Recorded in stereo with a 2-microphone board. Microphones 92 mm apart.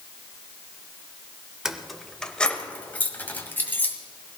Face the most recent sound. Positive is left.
turn(degrees=25)  # may be behind; listen again after turning